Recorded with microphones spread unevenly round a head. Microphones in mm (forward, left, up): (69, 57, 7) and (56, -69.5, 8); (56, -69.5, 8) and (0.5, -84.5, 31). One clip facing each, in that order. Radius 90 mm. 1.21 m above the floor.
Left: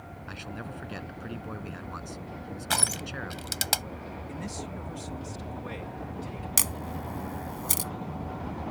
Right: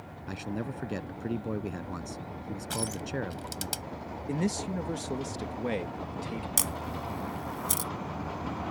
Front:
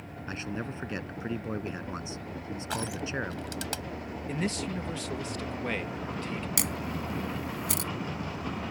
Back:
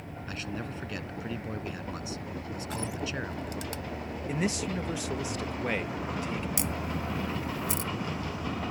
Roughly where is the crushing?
Left.